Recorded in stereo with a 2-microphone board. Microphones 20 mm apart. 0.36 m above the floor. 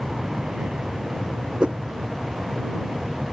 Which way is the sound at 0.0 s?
60° right (ahead or behind).